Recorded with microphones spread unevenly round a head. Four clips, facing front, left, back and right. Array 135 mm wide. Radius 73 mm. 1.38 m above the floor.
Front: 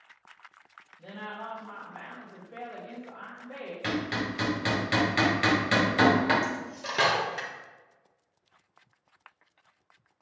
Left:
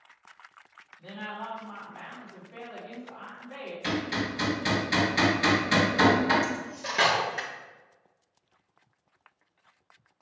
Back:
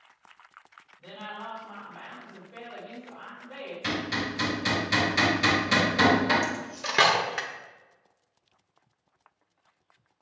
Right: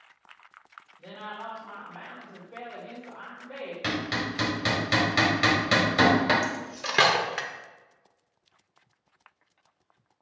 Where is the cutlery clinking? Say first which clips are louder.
Even, back 1 dB; 140° right, 0.5 m.